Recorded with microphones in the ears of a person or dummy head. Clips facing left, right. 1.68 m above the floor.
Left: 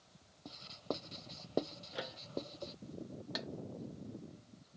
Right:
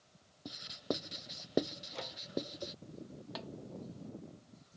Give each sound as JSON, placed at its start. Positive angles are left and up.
{"t": 0.5, "sound": "writing", "side_deg": -15}
{"t": 1.9, "sound": "a microwave", "side_deg": 5}
{"t": 3.4, "sound": "a snare drum", "side_deg": 20}